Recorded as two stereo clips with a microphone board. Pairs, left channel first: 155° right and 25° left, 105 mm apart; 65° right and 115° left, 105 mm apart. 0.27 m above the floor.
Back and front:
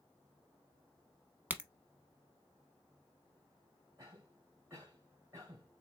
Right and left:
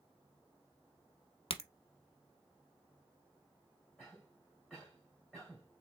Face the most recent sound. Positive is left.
turn(degrees=10)